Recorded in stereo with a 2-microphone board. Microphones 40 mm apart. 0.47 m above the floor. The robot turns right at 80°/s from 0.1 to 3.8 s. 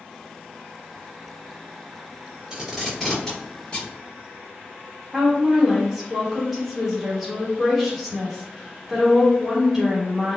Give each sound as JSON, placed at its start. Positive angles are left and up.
{"t": 2.5, "sound": "tape being pulled", "side_deg": -20, "distance_m": 1.5}
{"t": 5.1, "sound": "a woman speaking", "side_deg": -5, "distance_m": 1.2}